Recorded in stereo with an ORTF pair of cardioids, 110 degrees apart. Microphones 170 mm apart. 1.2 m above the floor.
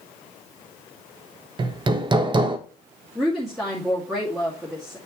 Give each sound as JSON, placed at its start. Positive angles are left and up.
{"t": 1.6, "sound": "hammering", "azimuth_deg": -25, "distance_m": 1.1}
{"t": 3.1, "sound": "a woman speaking", "azimuth_deg": 0, "distance_m": 2.0}